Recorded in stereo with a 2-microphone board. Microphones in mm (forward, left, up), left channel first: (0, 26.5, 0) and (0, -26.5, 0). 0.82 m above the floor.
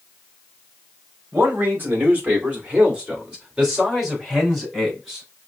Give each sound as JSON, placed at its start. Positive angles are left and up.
{"t": 1.3, "sound": "a man speaking", "side_deg": -45, "distance_m": 2.0}